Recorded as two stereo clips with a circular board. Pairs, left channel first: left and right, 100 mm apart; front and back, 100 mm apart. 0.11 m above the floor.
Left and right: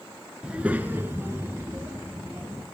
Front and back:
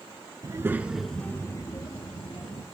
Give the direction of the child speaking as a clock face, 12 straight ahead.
5 o'clock.